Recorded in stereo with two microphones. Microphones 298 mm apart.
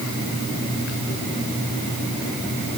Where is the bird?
I don't hear a bird.